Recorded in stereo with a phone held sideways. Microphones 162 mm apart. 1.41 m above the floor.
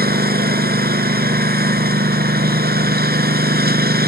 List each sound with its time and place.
0.0 s a lawn mower: 75° right (ahead or behind)